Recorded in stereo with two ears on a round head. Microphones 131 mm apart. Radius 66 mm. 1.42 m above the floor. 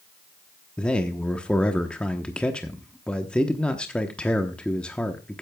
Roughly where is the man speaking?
Centre.